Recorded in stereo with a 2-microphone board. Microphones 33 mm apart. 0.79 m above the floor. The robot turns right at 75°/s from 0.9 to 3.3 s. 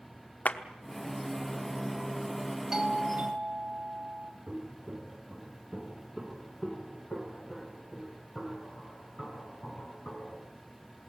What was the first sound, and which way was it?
A clap, 55° left (ahead or behind).